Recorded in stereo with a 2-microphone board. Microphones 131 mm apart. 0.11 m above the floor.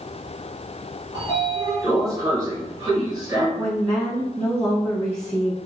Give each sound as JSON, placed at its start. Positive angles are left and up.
{"t": 1.1, "sound": "a sliding door", "side_deg": -25, "distance_m": 1.8}
{"t": 3.6, "sound": "a woman speaking", "side_deg": -15, "distance_m": 1.5}